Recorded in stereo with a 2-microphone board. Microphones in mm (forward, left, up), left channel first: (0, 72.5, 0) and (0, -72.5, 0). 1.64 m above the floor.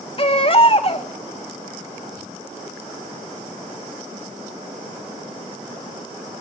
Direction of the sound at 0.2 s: 40° left (ahead or behind).